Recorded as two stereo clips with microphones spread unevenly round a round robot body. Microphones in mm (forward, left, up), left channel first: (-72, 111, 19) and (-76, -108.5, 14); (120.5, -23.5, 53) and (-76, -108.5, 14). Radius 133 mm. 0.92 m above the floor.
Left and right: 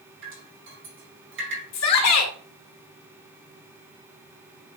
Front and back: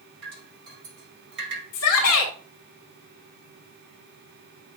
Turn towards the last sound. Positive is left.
turn(degrees=60)